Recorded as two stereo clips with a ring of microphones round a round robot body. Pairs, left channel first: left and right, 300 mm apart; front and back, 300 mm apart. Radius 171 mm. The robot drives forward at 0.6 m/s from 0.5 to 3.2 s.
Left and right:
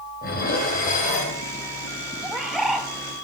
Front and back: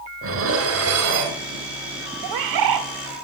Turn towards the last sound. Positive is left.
turn(degrees=180)